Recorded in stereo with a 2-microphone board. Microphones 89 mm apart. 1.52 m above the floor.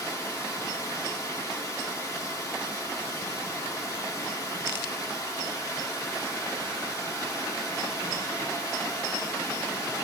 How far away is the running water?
About 1.6 m.